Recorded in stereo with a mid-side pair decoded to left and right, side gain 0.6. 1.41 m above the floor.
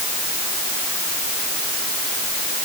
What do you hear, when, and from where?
Only background noise.